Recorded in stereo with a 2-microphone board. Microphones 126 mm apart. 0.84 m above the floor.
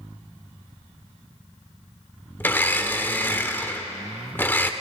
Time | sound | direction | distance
2.4 | a blender | 15° left (ahead or behind) | 0.6 m